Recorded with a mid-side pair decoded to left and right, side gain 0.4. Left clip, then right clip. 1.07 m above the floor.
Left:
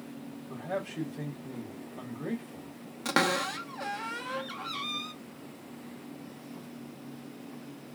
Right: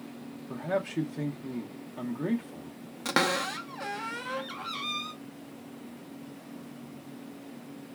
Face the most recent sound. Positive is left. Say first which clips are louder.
# even
turn(degrees=-5)